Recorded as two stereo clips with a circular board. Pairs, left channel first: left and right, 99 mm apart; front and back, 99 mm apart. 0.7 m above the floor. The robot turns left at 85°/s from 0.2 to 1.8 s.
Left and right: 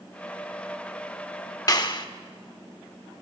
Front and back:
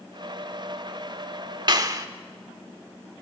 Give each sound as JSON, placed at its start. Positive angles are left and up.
{"t": 1.7, "sound": "a clap", "azimuth_deg": 140, "distance_m": 1.2}